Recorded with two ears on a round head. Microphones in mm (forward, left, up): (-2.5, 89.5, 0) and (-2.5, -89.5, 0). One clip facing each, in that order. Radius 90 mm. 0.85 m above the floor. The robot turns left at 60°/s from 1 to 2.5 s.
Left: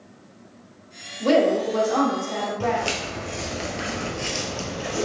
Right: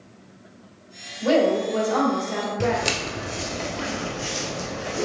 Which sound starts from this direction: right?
Footsteps, at 2.6 s.